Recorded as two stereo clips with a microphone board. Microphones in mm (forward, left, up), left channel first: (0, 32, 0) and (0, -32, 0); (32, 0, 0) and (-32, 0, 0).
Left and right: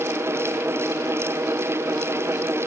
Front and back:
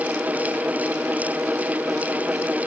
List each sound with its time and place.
Only background noise.